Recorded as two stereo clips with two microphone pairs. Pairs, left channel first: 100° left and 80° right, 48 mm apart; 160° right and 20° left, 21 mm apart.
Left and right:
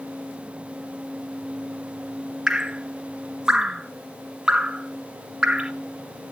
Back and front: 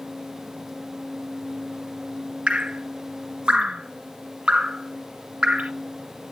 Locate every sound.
2.5 s dripping: 5° right, 1.5 m